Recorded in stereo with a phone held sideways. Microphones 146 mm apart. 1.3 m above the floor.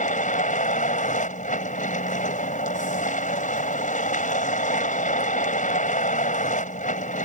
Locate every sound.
0.0 s a vehicle: 60° left (ahead or behind)